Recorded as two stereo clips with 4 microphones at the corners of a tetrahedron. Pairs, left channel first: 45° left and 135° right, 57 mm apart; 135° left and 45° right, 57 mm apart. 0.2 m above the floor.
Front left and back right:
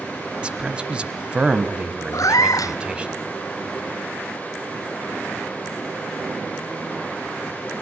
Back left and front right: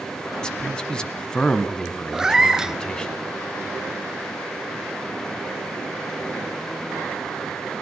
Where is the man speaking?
175° right, 1.3 m.